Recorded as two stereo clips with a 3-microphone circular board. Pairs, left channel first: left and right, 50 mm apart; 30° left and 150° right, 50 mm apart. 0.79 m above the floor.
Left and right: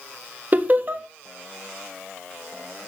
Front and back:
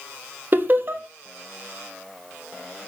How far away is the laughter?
About 1.1 m.